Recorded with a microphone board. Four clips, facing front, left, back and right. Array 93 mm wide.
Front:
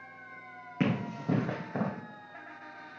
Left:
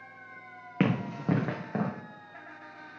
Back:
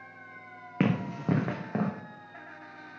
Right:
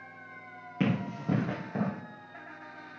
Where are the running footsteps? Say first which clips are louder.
Left 2 dB, back 3 dB; 130° left, 1.6 m; by 1.9 s 145° left, 2 m.